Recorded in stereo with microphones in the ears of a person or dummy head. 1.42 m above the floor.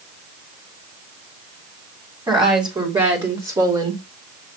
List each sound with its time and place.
2.3 s a woman speaking: 15° right (ahead or behind), 3.5 m; by 4.0 s 25° right (ahead or behind), 2 m